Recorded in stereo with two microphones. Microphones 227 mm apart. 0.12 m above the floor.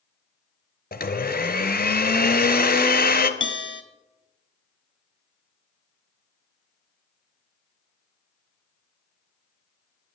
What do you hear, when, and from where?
0.9 s a blender: 45° left (ahead or behind), 0.9 m
3.4 s a bell: 60° left (ahead or behind), 0.9 m